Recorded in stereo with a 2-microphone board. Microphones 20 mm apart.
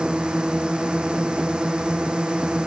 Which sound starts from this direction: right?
A drone, at 0.0 s.